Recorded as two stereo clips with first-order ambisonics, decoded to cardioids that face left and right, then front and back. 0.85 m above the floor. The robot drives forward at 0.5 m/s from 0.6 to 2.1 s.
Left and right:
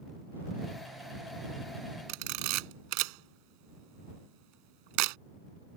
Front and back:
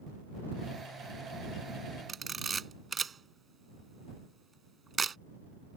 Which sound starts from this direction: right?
A camera shutter, at 2.1 s.